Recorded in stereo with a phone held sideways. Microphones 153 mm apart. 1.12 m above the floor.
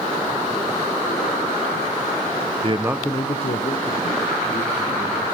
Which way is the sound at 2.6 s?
40° right (ahead or behind).